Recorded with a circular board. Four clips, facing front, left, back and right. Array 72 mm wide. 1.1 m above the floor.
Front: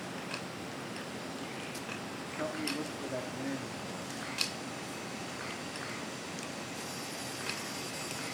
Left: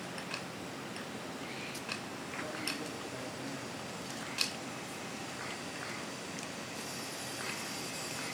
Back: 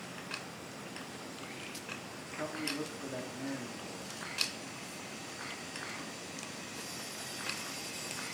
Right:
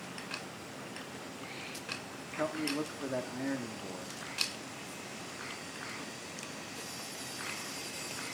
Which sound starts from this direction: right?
A man speaking, at 2.4 s.